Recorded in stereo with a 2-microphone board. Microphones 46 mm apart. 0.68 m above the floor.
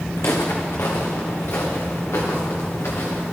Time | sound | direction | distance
0.2 | footsteps | 70° left (ahead or behind) | 2.5 m